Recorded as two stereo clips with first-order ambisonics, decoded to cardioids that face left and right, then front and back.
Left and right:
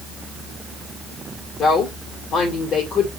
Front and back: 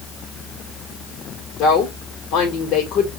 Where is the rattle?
I don't hear a rattle.